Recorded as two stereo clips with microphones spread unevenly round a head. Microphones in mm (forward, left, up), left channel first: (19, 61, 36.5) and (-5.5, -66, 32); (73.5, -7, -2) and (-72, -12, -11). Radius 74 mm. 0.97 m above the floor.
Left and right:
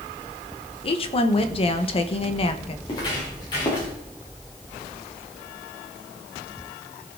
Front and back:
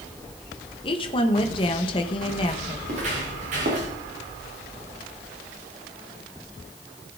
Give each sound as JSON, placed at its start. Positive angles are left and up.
{"t": 0.8, "sound": "a woman speaking", "azimuth_deg": 50, "distance_m": 1.1}
{"t": 2.9, "sound": "footsteps", "azimuth_deg": 135, "distance_m": 6.0}